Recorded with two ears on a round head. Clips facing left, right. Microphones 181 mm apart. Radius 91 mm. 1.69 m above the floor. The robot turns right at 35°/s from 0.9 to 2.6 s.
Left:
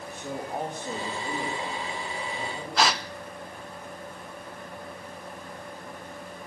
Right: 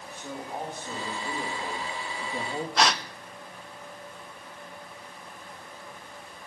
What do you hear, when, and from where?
0.1 s a man speaking: 165° left, 2.5 m; by 2.7 s 135° right, 2.5 m
2.8 s a gasp: centre (ahead or behind), 0.7 m